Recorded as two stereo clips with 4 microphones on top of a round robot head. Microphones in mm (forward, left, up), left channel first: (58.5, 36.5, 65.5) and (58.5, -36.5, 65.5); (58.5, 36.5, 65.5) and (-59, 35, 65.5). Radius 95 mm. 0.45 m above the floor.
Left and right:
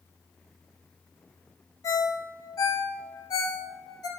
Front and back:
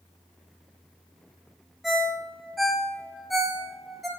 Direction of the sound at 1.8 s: 95° left.